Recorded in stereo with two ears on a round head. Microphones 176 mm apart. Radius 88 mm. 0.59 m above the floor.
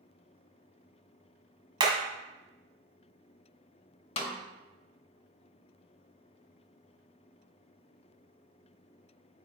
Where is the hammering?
25° right (ahead or behind), 1.5 m.